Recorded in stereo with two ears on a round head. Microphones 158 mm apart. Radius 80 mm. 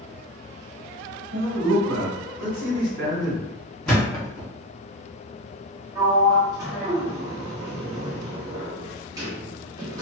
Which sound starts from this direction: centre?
A thud, at 3.9 s.